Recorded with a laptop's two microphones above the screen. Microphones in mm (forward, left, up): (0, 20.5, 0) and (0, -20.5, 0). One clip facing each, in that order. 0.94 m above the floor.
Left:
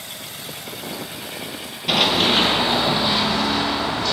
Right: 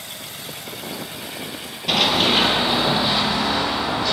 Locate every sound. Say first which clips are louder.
1.9 s running footsteps: even; 5° left (ahead or behind), 0.9 m; by 4.1 s 10° right (ahead or behind), 2 m